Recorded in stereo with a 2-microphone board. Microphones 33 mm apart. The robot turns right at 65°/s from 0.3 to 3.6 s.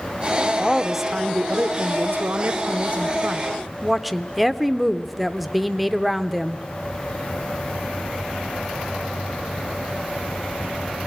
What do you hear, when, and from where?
0.6 s a woman speaking: 165° left, 0.7 m; by 6.7 s straight ahead, 0.7 m